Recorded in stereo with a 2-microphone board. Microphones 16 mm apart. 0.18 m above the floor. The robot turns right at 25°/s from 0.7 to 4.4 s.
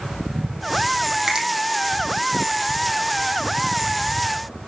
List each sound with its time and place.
1.3 s a finger snap: 35° right (ahead or behind), 5 m; by 1.5 s 40° right (ahead or behind), 5 m